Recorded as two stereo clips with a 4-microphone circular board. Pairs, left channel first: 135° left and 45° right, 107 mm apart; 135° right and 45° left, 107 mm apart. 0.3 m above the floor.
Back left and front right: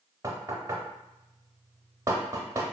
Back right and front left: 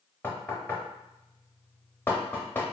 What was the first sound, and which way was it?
Knocking, 80° right.